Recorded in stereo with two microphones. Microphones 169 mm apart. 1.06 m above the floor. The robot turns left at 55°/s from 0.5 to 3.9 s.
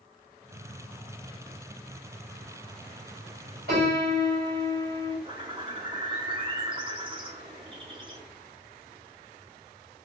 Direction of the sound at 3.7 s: 65° right (ahead or behind).